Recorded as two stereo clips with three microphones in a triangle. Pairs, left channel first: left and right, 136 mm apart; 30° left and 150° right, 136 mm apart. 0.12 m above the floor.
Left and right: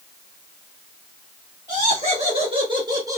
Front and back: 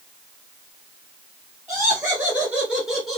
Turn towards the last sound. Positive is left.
turn(degrees=-50)